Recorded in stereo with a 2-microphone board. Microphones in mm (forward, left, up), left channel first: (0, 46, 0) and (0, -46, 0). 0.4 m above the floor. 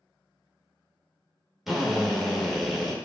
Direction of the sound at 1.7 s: 5° right (ahead or behind).